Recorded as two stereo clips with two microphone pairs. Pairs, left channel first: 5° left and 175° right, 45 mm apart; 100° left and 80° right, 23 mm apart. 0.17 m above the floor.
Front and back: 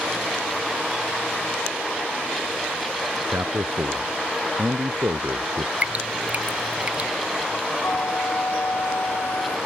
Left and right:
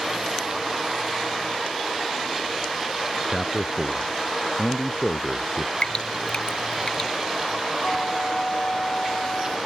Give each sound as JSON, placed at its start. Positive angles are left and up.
{"t": 3.3, "sound": "a man speaking", "azimuth_deg": 180}
{"t": 5.8, "sound": "dripping", "azimuth_deg": 135}
{"t": 7.8, "sound": "a flute", "azimuth_deg": 40}